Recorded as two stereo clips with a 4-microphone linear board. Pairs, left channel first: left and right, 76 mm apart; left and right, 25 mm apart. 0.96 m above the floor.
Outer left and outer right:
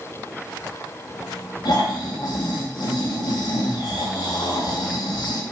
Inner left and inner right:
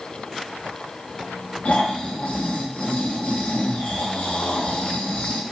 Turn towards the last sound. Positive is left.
turn(degrees=60)  # may be behind; listen again after turning